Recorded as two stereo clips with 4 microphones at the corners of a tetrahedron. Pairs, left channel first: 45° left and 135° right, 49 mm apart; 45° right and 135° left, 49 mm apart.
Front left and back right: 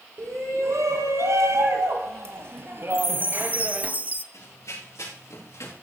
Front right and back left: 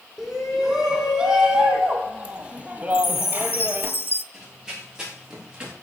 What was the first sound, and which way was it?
A shout, 145° right.